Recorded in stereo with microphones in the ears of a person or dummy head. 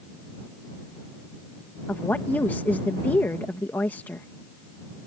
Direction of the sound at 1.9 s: 10° left (ahead or behind).